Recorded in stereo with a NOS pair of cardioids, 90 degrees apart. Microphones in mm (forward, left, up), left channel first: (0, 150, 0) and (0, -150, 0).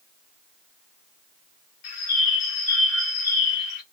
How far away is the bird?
About 1.0 m.